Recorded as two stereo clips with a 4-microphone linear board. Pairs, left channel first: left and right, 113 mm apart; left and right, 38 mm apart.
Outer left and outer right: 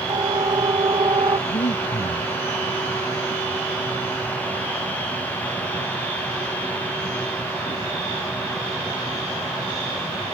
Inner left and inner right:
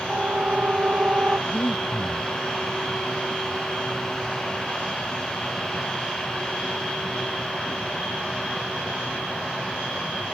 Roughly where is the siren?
Right.